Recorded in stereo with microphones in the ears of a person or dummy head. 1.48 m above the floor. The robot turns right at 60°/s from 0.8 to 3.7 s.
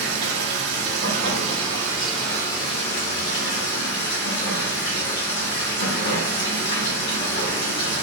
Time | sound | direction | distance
0.0 | running water | 75° right | 2 m